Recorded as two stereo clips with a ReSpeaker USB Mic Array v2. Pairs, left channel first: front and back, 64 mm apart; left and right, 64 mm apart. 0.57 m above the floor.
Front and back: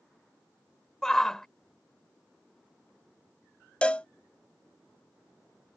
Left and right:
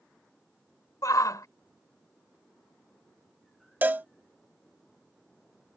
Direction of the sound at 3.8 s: 55° right.